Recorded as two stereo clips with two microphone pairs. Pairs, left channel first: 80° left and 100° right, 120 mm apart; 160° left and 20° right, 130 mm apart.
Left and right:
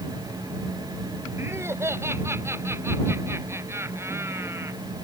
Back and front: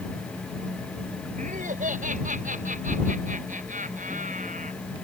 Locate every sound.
1.4 s laughter: 30° right